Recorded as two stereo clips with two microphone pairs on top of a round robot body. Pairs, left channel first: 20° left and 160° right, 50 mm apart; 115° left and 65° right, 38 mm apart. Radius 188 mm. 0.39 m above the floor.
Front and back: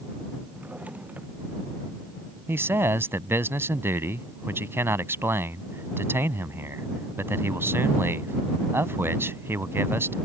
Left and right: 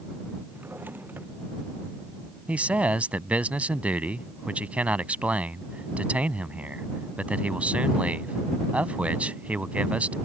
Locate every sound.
0.5 s a drawer: 100° right
2.5 s a man speaking: 120° right